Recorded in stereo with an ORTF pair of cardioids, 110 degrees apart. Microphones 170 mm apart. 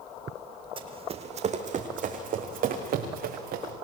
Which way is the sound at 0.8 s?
35° right.